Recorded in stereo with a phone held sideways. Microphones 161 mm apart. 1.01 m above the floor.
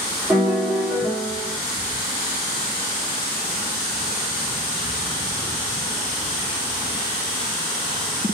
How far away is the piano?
About 1.6 m.